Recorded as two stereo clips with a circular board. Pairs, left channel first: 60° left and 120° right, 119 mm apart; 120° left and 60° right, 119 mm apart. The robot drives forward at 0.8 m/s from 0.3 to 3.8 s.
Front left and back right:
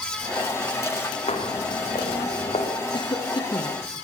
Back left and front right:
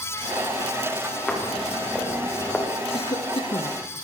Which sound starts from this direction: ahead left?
Footsteps, at 1.3 s.